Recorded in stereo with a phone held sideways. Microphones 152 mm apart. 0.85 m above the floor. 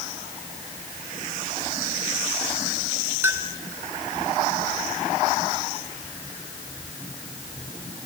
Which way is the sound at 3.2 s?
15° right (ahead or behind).